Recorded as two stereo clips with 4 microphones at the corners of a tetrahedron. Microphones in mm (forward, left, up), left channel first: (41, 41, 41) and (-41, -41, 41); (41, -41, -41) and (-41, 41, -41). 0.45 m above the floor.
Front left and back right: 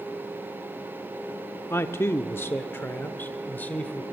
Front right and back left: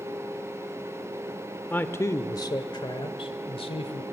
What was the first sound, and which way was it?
A man speaking, 10° left.